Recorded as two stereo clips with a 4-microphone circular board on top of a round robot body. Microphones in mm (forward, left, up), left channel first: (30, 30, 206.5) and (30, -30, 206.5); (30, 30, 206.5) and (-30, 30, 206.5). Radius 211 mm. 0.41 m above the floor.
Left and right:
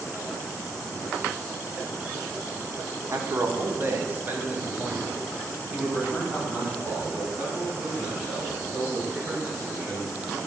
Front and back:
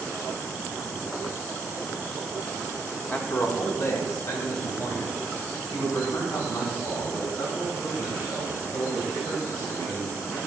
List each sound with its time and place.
3.1 s a man speaking: 55° right, 1.4 m; by 10.4 s 5° right, 7.5 m